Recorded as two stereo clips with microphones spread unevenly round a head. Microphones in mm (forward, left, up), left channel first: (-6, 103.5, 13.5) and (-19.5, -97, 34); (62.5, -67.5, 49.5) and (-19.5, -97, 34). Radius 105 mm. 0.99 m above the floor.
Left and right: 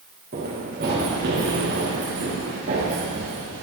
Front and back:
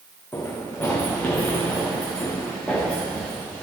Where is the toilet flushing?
No toilet flushing in this recording.